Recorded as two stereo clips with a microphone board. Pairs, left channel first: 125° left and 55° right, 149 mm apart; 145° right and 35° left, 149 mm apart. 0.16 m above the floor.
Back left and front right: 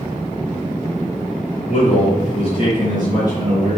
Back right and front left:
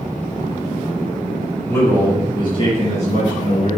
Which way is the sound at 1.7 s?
140° left.